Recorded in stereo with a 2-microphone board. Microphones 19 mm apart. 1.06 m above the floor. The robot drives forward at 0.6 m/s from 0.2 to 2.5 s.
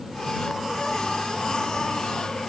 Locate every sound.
Only background noise.